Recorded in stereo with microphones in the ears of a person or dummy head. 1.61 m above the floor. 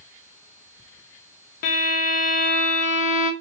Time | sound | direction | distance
1.6 | a violin | 50° left (ahead or behind) | 1.1 m